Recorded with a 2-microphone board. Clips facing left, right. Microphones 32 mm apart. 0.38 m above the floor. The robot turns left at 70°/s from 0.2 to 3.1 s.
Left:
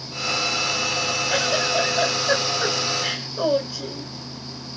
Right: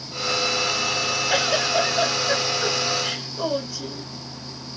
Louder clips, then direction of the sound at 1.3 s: Right 1 dB; 140° right.